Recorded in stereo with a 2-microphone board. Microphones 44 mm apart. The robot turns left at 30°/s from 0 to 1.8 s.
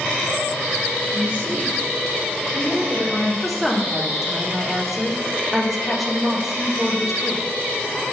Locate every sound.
1.1 s a woman speaking: 30° right (ahead or behind), 2 m; by 3.3 s 10° right (ahead or behind), 2 m
3.4 s a woman speaking: centre (ahead or behind), 0.7 m